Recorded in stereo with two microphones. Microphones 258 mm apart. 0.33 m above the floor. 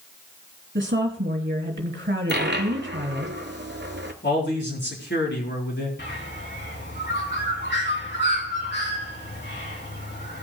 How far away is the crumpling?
I don't hear crumpling.